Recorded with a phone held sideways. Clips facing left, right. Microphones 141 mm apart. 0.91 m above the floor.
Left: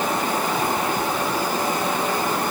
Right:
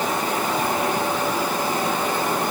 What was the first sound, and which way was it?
Only background noise.